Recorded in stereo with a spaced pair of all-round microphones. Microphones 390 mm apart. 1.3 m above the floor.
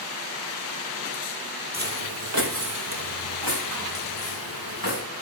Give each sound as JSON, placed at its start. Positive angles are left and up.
{"t": 1.7, "sound": "footsteps", "side_deg": -25, "distance_m": 1.4}